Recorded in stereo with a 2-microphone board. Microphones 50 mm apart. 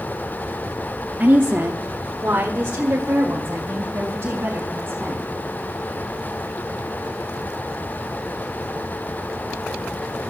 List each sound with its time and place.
1.2 s a woman speaking: 35° right (ahead or behind), 1.0 m; by 5.3 s 40° right (ahead or behind), 5 m